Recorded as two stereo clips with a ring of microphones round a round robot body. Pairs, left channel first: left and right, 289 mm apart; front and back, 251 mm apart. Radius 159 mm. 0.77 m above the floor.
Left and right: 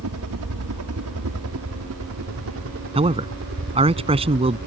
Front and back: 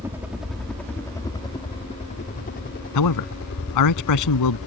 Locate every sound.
0.0 s a helicopter: 100° right; by 4.7 s 35° right
3.0 s a man speaking: 20° right